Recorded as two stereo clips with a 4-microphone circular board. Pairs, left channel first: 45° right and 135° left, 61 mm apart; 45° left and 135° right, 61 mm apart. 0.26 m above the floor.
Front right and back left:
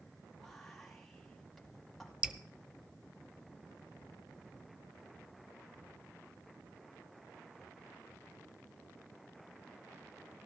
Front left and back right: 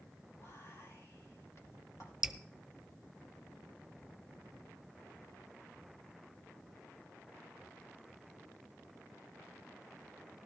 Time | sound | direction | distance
0.4 | whispering | 45° left | 2 m
2.2 | dripping | 165° left | 0.5 m